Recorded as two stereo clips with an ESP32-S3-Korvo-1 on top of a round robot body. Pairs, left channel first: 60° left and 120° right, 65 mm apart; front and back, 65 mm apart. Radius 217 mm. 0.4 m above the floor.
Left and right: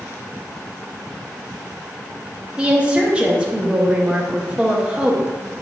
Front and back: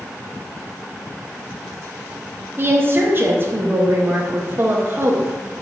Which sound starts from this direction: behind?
A woman speaking, at 2.6 s.